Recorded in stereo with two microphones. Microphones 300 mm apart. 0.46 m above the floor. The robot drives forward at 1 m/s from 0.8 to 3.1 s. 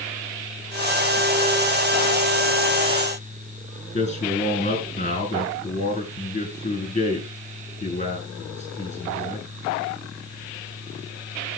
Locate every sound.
3.9 s a man speaking: 20° left (ahead or behind), 5.5 m